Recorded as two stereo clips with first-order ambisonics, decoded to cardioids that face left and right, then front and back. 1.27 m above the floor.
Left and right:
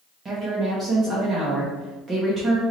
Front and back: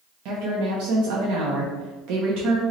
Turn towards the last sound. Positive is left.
turn(degrees=-160)